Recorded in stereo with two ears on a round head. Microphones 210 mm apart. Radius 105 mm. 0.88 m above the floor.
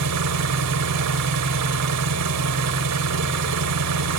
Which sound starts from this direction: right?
An engine running, at 0.0 s.